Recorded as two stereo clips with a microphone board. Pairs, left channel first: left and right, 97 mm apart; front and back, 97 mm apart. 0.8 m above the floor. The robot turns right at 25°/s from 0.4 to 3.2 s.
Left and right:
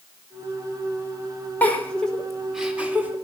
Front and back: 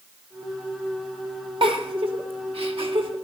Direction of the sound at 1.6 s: 160° left.